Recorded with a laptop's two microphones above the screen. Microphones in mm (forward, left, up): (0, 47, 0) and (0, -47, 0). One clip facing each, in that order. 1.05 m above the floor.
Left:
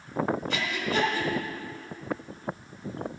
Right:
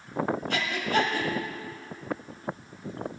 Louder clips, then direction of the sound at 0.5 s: Right 2 dB; 55° right (ahead or behind).